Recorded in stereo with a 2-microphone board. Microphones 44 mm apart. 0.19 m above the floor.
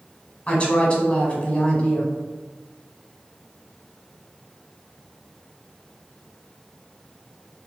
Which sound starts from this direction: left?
A woman speaking, at 0.5 s.